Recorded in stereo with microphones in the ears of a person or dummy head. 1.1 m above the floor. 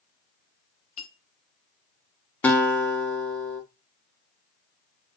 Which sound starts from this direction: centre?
A guitar, at 2.4 s.